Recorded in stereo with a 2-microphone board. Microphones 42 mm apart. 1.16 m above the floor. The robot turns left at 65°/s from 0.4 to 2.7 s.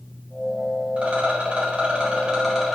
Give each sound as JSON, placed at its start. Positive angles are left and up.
{"t": 1.0, "sound": "a rattle", "azimuth_deg": -55, "distance_m": 1.0}